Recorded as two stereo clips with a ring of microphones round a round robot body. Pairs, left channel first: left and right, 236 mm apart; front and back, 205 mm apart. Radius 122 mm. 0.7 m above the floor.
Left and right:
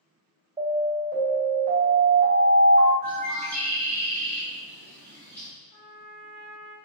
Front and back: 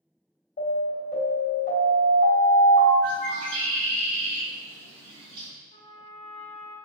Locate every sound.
0.6 s an alarm: 25° right, 2.0 m
3.0 s a bird: 175° left, 1.3 m
5.7 s a trumpet: 60° left, 0.8 m